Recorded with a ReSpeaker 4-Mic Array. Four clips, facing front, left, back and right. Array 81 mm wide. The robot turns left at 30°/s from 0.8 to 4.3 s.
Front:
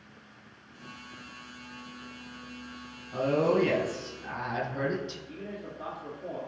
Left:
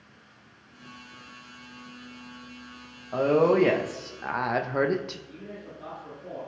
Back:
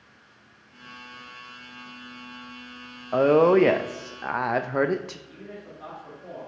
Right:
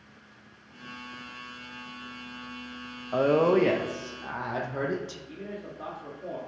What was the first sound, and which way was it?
A woman speaking, 170° right.